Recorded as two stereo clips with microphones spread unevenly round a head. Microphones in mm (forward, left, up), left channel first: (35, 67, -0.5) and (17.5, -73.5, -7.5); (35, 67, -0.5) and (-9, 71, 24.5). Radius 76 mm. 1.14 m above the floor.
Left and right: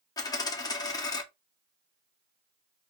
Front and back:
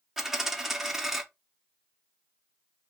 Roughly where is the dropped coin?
Behind left.